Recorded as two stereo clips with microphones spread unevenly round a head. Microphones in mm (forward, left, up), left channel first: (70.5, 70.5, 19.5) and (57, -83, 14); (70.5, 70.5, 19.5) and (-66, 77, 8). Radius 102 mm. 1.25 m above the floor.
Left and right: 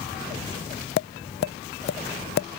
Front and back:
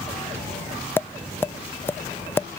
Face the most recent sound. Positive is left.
turn(degrees=75)